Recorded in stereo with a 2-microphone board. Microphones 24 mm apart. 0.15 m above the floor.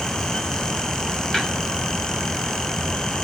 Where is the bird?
No bird in this recording.